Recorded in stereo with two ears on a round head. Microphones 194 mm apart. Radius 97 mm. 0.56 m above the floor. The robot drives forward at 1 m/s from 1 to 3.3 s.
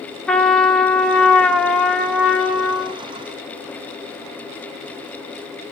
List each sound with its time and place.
0.3 s a trumpet: 5° left (ahead or behind), 1.0 m; by 3.0 s centre (ahead or behind), 2.5 m